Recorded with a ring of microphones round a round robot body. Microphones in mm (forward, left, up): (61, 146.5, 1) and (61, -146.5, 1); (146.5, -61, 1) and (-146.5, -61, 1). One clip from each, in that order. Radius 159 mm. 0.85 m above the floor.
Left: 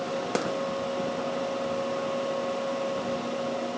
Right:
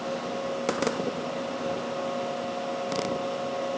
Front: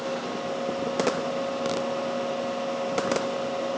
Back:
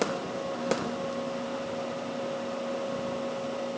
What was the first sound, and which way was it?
Only background noise.